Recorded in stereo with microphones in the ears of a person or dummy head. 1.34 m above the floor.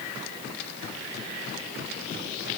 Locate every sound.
Only background noise.